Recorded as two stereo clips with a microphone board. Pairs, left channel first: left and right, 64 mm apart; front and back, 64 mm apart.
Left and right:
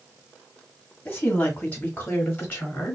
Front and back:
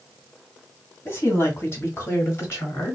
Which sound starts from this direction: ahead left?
A woman speaking, at 1.1 s.